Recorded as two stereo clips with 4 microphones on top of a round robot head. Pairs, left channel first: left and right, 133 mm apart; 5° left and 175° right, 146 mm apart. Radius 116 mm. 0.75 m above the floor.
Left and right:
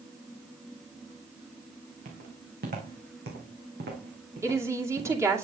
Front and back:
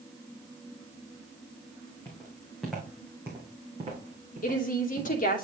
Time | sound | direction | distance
2.0 | footsteps | 70° right | 3 m
4.4 | a woman speaking | 20° right | 2.5 m